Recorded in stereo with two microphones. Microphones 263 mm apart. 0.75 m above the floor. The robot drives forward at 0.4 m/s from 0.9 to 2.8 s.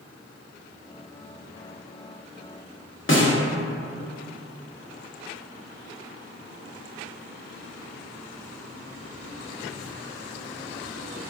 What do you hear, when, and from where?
3.1 s a snare drum: 50° left (ahead or behind), 0.7 m